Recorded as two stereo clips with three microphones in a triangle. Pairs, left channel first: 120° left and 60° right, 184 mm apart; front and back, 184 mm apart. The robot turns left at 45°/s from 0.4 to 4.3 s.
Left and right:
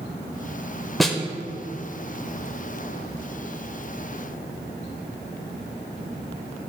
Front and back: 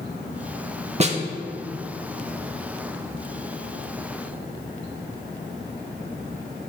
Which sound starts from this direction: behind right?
A snare drum, at 1.0 s.